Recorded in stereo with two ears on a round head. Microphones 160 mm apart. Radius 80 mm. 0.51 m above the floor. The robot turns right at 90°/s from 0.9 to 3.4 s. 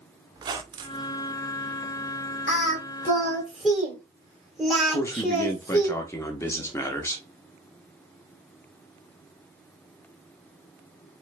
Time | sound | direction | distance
0.3 | a squeak | 25° right (ahead or behind) | 0.5 m
2.5 | singing | 65° left (ahead or behind) | 2.0 m
4.9 | a man speaking | 15° left (ahead or behind) | 0.8 m